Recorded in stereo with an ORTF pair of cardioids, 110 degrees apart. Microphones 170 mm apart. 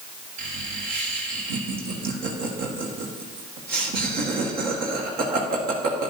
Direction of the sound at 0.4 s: 65° right.